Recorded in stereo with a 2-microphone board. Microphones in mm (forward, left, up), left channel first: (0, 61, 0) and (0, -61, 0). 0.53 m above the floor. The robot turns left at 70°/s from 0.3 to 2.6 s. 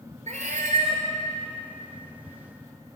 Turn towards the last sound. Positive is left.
turn(degrees=120)